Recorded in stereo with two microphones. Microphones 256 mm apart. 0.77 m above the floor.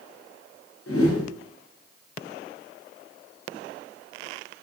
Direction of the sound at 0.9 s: 60° left (ahead or behind).